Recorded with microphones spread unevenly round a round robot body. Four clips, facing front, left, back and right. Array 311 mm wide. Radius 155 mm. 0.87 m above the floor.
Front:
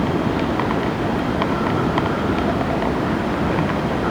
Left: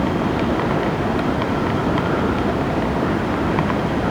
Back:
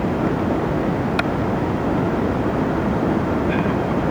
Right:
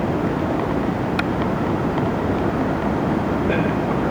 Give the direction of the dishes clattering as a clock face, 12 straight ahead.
No dishes clattering in this recording.